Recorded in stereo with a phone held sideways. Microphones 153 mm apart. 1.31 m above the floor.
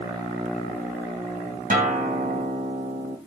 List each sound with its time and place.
1.7 s a guitar: 70° right (ahead or behind), 3 m